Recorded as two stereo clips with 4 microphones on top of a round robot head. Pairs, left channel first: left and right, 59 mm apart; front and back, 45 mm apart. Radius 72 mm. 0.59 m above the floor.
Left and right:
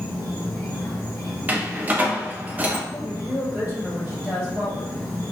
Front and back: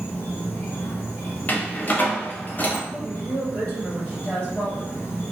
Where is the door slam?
40° right, 0.5 m.